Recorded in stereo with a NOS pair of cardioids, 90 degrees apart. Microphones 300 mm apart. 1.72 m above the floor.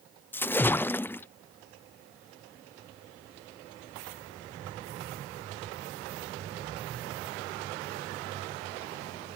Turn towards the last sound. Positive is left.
turn(degrees=5)